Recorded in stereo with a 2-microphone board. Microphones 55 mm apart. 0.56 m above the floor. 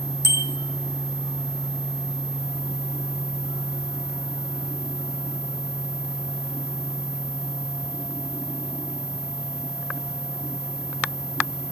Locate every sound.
0.2 s a bicycle bell: 60° right (ahead or behind), 5.5 m